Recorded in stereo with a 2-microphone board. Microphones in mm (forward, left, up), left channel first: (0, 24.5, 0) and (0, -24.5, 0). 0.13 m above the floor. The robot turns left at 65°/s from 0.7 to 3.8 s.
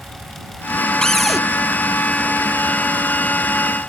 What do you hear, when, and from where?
1.0 s a cupboard door: 15° left (ahead or behind); by 1.4 s 10° right (ahead or behind)